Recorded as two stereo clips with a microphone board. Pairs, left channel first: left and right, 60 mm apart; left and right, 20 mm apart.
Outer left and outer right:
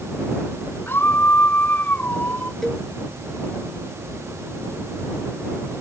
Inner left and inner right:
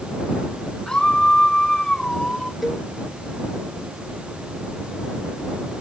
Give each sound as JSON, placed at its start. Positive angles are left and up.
{"t": 0.9, "sound": "a scream", "side_deg": 35}
{"t": 2.6, "sound": "a cowbell", "side_deg": 0}